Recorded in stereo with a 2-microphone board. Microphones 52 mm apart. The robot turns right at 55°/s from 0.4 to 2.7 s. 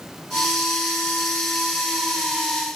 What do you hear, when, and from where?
Only background noise.